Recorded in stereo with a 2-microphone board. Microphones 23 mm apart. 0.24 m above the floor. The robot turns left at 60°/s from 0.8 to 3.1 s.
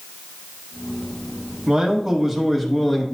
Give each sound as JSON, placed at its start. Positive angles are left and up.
{"t": 1.7, "sound": "a man speaking", "side_deg": -15, "distance_m": 1.0}